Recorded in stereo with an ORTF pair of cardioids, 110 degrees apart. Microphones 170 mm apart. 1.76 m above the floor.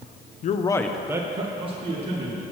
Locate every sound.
0.4 s a man speaking: 50° left, 0.6 m; by 2.4 s 40° right, 2 m